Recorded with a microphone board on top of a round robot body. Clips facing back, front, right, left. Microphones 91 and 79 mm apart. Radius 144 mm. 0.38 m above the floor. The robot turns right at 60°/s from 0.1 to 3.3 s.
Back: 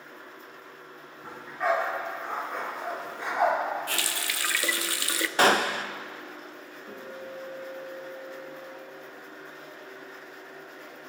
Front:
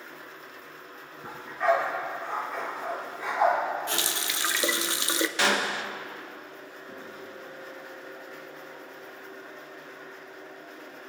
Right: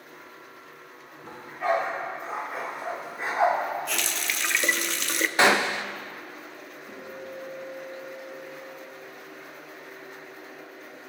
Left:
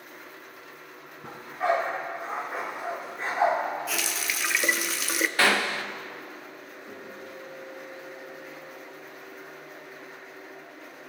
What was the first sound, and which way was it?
A dog barking, 70° left.